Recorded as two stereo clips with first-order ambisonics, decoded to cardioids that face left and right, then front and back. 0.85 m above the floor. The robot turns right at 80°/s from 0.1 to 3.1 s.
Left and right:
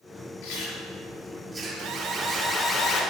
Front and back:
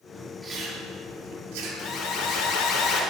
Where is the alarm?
60° right, 3 m; by 3.0 s 40° left, 3 m.